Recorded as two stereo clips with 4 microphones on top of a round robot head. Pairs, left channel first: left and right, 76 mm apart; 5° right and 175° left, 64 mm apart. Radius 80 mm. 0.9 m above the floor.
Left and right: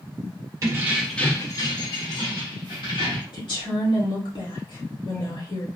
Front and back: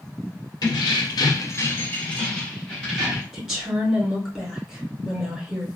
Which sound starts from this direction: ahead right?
Keys jangling, at 0.6 s.